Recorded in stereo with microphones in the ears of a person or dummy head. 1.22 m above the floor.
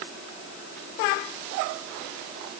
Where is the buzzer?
I don't hear a buzzer.